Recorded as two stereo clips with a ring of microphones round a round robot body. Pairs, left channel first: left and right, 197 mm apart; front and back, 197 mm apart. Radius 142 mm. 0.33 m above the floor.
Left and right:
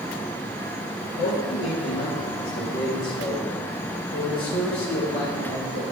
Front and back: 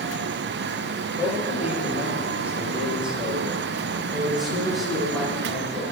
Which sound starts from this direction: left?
A man speaking, at 1.2 s.